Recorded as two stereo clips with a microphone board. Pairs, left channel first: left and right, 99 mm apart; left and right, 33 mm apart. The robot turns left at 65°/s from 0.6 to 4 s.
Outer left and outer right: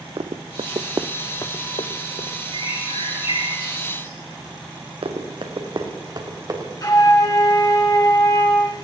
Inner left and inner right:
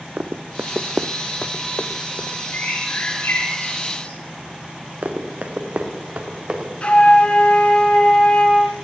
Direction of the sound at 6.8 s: 40° left (ahead or behind).